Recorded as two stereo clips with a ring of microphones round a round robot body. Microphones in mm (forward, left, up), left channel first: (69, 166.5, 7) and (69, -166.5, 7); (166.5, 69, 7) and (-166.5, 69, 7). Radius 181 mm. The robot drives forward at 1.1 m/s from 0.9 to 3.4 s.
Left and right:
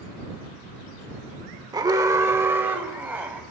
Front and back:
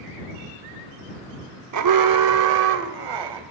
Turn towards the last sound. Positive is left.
turn(degrees=-175)